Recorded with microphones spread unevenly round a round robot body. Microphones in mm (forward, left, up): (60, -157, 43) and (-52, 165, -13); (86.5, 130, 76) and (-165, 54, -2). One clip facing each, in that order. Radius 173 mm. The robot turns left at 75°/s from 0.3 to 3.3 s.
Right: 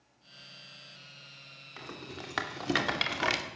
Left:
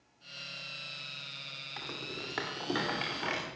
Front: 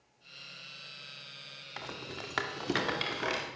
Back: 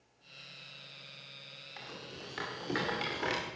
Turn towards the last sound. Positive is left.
turn(degrees=-80)